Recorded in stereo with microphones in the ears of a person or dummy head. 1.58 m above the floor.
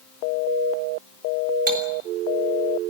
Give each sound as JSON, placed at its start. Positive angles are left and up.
{"t": 1.7, "sound": "cutlery clinking", "side_deg": -55, "distance_m": 3.0}